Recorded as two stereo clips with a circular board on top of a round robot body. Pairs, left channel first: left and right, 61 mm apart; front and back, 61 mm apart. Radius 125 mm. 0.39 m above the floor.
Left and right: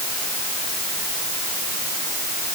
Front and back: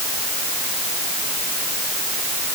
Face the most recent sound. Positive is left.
No sound to turn to.